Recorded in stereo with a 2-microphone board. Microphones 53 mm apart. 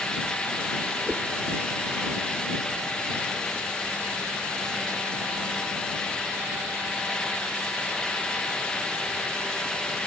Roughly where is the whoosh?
Right.